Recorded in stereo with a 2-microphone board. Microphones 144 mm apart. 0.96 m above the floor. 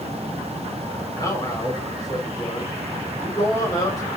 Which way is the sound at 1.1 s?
30° left (ahead or behind).